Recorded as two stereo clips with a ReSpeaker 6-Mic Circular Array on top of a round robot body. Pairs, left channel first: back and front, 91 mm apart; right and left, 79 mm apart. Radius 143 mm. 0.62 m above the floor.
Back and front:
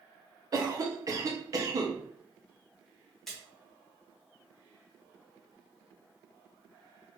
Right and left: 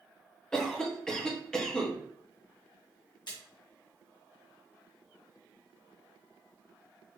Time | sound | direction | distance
0.5 | a cough | 15° right | 1.4 m
3.3 | a splash | 95° right | 1.9 m